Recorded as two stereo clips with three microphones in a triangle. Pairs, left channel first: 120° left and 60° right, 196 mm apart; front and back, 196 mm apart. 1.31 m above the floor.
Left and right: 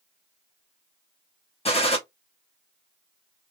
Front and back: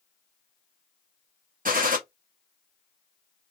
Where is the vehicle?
No vehicle in this recording.